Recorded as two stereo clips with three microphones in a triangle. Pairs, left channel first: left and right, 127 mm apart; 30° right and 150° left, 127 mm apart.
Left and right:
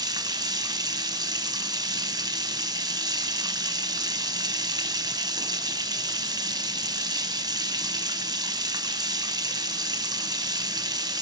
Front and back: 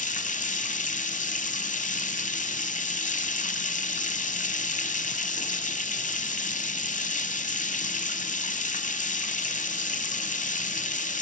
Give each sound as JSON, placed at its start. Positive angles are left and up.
{"t": 0.0, "sound": "running water", "azimuth_deg": -30, "distance_m": 1.0}